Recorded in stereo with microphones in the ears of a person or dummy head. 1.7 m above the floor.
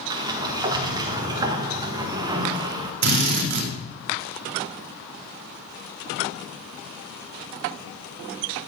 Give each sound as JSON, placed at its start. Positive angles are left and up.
{"t": 0.1, "sound": "a sliding door", "side_deg": -15, "distance_m": 1.6}
{"t": 3.0, "sound": "a drill", "side_deg": -55, "distance_m": 3.5}